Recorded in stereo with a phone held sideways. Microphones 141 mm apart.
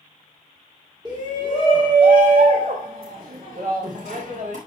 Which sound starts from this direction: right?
A shout, at 1.1 s.